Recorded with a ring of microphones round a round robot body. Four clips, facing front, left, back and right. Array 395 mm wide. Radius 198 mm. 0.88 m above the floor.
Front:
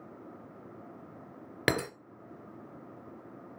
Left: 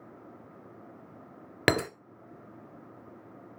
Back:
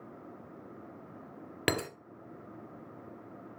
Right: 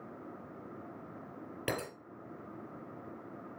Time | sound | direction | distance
1.7 | breaking glass | 80° left | 1.2 m